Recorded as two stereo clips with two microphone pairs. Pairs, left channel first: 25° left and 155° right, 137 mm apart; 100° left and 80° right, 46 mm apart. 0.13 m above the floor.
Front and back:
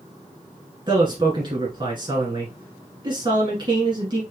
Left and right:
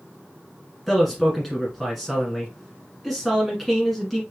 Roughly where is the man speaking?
Behind.